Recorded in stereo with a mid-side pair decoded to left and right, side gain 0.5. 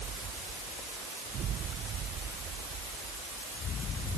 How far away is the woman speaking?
I don't hear a woman speaking.